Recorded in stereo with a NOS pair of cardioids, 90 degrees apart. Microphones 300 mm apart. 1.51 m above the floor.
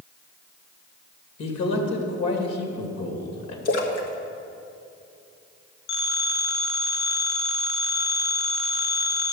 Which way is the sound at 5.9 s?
65° left.